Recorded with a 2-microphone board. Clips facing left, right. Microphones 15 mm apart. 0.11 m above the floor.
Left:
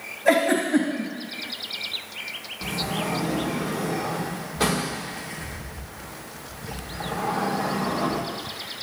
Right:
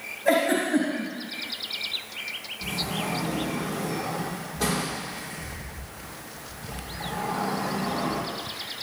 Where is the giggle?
25° left (ahead or behind), 3 m.